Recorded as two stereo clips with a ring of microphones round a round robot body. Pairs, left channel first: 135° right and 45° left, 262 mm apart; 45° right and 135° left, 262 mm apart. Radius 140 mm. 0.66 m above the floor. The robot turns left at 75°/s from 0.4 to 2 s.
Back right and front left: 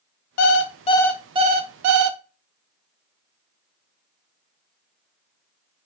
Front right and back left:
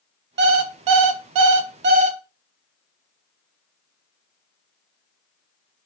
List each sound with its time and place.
0.4 s an alarm clock: 170° right, 0.6 m; by 2.2 s 70° left, 0.6 m